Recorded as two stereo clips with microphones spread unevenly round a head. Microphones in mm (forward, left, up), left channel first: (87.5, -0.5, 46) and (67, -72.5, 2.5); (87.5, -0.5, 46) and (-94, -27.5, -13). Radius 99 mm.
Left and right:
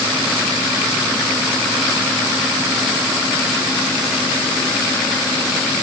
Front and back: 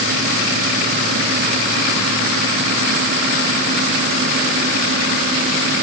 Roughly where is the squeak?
I don't hear a squeak.